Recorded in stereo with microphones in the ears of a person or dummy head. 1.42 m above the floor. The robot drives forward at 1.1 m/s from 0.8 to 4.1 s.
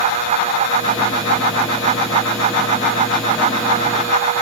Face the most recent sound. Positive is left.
No sound to turn to.